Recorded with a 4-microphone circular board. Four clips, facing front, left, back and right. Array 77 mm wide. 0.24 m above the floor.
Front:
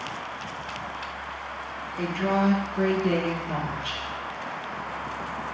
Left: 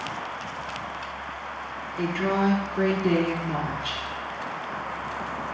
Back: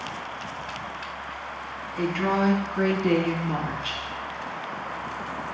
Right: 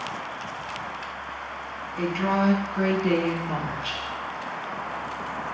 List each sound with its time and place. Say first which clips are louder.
2.0 s a woman speaking: right 1 dB, back 1 dB; 145° right, 2 m